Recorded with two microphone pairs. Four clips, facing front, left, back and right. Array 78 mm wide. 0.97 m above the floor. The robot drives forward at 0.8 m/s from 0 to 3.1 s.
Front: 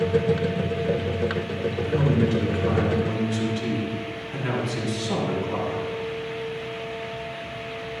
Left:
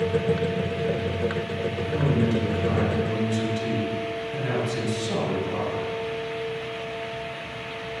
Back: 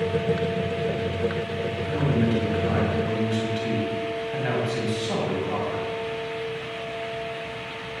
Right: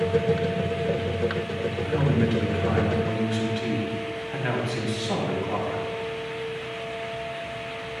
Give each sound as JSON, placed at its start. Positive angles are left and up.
{"t": 1.8, "sound": "a man speaking", "azimuth_deg": -105, "distance_m": 5.5}